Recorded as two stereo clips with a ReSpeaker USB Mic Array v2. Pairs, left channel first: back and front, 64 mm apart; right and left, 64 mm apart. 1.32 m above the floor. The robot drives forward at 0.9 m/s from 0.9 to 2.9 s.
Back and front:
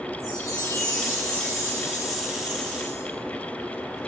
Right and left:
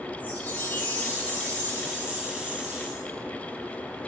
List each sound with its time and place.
0.2 s a chime: 155° right, 5 m; by 3.0 s 160° right, 7 m